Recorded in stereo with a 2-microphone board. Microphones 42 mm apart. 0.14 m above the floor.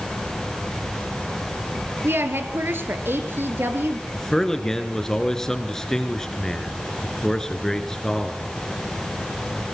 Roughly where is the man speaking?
Centre.